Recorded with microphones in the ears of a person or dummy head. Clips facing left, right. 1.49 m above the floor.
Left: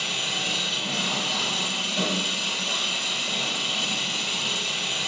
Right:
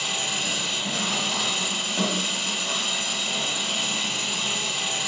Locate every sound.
0.0 s an engine running: 35° left (ahead or behind), 1.3 m